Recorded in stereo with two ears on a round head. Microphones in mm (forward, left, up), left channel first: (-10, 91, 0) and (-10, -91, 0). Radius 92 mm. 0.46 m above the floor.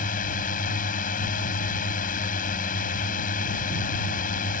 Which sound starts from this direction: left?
A drone, at 0.0 s.